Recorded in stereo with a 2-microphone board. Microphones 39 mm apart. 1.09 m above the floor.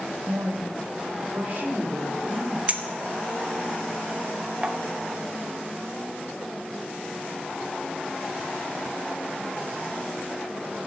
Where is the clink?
35° right (ahead or behind), 0.8 m.